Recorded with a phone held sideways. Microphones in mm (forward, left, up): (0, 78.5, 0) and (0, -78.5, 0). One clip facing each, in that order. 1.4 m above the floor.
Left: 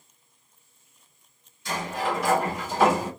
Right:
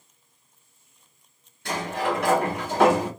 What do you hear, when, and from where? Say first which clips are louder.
1.6 s a sliding door: right 2 dB; 65° right (ahead or behind), 1.8 m